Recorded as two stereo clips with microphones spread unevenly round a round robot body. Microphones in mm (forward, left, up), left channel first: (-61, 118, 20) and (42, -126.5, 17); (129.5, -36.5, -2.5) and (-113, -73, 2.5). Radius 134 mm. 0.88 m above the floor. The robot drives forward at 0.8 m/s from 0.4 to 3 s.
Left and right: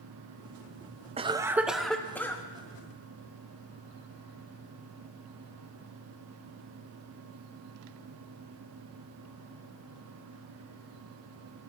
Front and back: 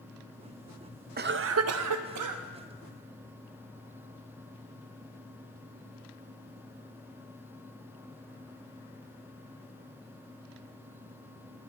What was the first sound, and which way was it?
A cough, 130° right.